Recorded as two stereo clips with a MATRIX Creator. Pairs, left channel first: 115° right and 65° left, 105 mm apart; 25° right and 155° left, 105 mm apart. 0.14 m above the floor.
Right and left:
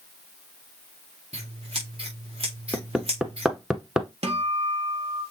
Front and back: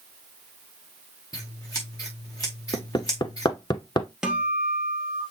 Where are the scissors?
35° left, 4 m.